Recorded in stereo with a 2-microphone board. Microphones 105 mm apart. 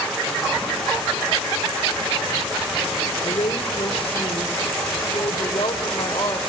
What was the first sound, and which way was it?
A woman speaking, 65° left (ahead or behind).